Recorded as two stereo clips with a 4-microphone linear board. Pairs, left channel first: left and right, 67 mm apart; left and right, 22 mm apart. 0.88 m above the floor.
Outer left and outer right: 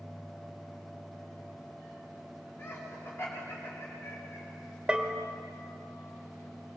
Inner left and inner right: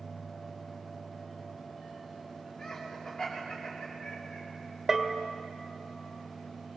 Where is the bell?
15° right (ahead or behind), 2.0 m.